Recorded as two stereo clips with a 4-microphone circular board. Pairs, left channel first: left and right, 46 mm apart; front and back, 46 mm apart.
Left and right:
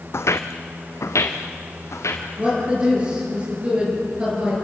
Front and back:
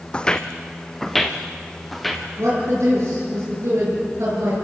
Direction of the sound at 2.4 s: 155° right.